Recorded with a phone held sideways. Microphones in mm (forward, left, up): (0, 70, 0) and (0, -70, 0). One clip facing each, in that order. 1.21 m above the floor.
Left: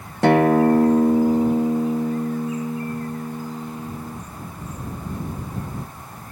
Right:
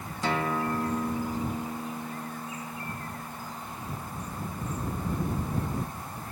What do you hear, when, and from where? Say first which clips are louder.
0.2 s a guitar: left 14 dB; 65° left (ahead or behind)